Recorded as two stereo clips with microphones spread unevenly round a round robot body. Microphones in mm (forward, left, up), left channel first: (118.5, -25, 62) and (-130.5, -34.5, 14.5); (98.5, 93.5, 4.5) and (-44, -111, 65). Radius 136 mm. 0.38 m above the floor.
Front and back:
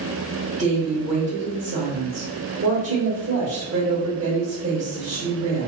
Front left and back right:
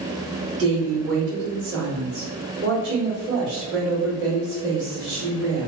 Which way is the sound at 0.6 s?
165° right.